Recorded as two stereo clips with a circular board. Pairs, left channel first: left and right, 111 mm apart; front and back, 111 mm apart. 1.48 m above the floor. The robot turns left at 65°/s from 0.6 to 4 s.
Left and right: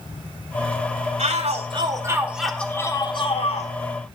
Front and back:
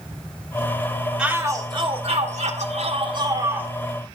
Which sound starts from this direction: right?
A shout, at 1.2 s.